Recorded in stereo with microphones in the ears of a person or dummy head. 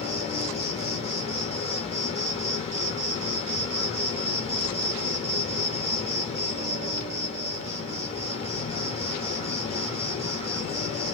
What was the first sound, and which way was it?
An insect, 35° left (ahead or behind).